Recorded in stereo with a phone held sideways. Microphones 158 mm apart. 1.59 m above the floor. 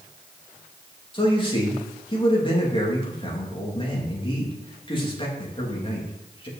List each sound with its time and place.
1.1 s a man speaking: 35° left (ahead or behind), 3 m